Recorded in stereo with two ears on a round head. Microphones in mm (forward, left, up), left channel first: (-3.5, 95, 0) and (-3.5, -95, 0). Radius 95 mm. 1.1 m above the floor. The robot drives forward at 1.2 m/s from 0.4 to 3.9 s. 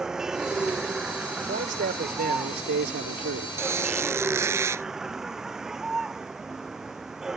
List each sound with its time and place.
0.0 s a vehicle: 5° right (ahead or behind); by 7.4 s centre (ahead or behind)
1.5 s a man speaking: 40° right (ahead or behind); by 3.5 s 65° right (ahead or behind)
3.6 s a squeak: 15° right (ahead or behind)